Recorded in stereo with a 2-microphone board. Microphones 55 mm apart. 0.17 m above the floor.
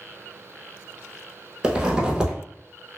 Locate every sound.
1.6 s a zipper: 15° right (ahead or behind), 0.7 m